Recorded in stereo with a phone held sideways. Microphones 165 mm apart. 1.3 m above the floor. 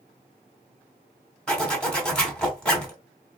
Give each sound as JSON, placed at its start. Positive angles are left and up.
{"t": 1.5, "sound": "a zipper", "side_deg": 5, "distance_m": 1.2}